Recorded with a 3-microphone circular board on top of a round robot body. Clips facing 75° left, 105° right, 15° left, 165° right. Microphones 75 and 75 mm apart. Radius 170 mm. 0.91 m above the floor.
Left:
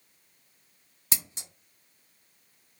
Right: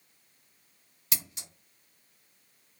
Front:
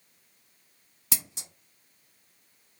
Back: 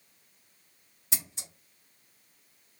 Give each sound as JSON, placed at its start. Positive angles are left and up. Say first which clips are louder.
{"t": 1.1, "sound": "scissors", "louder": "left 1 dB, front 3 dB", "azimuth_deg": 15, "distance_m": 0.6}